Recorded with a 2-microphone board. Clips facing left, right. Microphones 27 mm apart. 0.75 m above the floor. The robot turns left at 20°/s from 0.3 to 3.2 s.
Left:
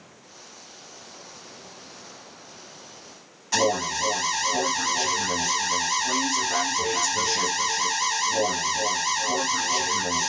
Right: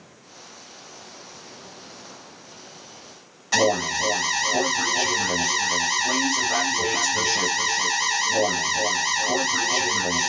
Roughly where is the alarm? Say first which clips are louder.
Right 3 dB; centre.